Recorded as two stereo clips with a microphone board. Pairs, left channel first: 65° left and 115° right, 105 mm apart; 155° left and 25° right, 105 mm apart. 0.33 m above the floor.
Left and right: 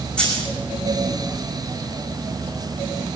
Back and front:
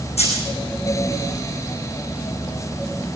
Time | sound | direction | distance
0.2 | a dropped coin | 145° left | 5.5 m